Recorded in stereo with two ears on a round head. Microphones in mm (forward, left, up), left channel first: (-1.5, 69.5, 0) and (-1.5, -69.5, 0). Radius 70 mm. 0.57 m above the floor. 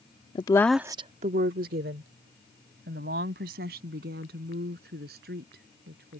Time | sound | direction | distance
0.3 | a woman speaking | 35° left (ahead or behind) | ?